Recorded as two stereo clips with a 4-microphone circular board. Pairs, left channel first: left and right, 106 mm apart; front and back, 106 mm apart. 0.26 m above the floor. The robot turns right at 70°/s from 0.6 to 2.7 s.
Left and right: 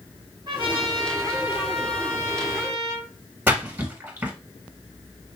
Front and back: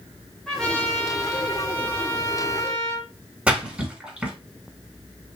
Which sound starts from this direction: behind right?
A splash, at 3.5 s.